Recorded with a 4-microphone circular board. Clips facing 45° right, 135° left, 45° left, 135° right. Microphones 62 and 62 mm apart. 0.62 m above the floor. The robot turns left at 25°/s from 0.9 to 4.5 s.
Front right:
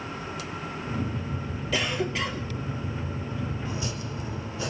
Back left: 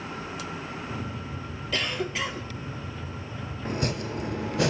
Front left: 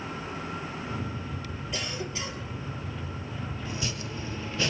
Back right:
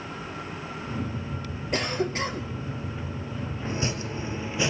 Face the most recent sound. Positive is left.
turn(degrees=150)